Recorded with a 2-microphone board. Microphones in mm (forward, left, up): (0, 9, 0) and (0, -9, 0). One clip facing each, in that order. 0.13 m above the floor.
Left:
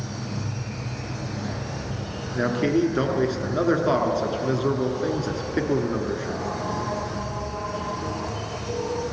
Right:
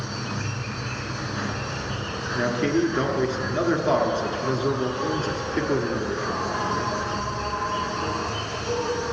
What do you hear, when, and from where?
0.0 s an insect: 70° right (ahead or behind), 2.5 m
2.4 s a man speaking: 5° left (ahead or behind), 1.3 m